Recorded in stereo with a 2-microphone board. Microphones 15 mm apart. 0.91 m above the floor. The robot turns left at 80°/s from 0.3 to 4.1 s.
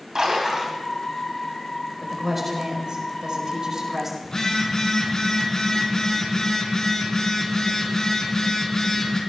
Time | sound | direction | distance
0.1 | a splash | 135° right | 3.5 m
2.0 | a woman speaking | 10° left | 4 m
4.2 | a phone buzzing | 45° left (ahead or behind) | 3.5 m